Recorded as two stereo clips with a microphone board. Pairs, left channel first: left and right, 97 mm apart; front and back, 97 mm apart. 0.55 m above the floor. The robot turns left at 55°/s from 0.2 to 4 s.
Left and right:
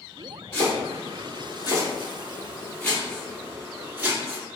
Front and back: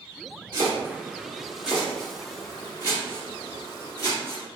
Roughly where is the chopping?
Behind.